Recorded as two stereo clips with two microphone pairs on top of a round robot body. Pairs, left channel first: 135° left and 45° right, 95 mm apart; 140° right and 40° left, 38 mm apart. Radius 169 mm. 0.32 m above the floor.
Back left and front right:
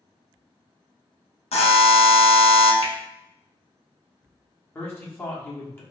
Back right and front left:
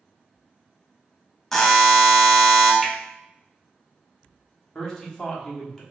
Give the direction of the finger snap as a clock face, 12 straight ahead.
8 o'clock.